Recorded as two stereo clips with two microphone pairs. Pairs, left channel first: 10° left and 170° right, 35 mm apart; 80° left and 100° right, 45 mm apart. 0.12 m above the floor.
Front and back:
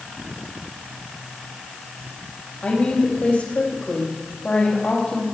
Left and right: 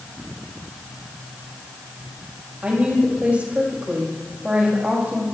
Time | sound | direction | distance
2.6 | a woman speaking | 35° right | 5.5 m